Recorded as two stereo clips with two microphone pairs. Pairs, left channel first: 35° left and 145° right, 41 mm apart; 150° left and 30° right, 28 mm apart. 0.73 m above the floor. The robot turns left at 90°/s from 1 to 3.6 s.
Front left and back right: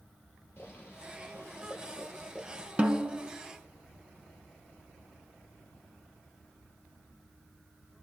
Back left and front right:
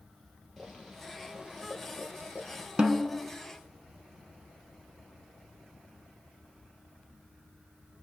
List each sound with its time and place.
0.6 s boiling: 70° left, 5.5 m; by 2.7 s 85° right, 5.5 m
2.8 s a snare drum: 90° right, 1.7 m; by 3.2 s 125° right, 1.7 m